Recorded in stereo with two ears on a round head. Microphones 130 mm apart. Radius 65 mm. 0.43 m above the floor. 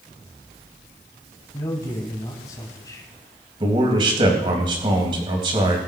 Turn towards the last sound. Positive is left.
turn(degrees=-35)  # may be behind; listen again after turning